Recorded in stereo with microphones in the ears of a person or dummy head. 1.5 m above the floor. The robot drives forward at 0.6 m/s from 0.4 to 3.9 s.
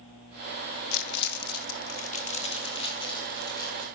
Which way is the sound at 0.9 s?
65° left (ahead or behind).